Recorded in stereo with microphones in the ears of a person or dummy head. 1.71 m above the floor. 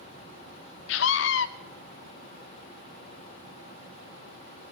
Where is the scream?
60° left (ahead or behind), 1.4 m.